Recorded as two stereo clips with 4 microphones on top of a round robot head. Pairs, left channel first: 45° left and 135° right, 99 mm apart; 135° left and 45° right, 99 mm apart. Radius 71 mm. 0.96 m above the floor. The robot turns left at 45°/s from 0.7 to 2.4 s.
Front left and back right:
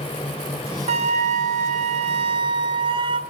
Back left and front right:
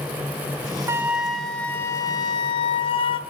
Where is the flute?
115° right, 1.2 m; by 3.2 s straight behind, 1.2 m.